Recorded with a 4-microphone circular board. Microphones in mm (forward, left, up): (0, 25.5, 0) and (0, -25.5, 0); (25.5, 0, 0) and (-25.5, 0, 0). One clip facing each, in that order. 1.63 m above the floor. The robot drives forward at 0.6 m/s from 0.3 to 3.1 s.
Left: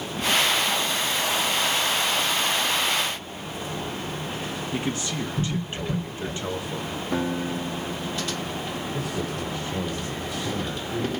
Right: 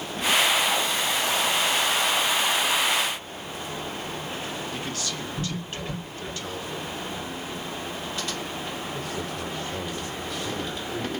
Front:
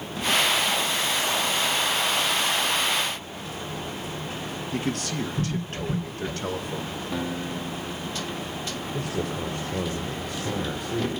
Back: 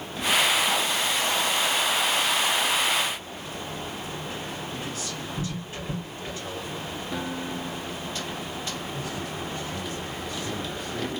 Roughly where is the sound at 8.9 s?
Ahead.